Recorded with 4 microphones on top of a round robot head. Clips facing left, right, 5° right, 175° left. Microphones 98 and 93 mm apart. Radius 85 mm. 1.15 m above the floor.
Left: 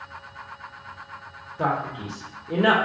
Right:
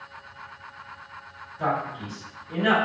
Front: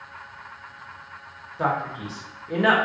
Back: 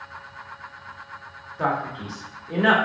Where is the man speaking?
85° left, 1.1 m.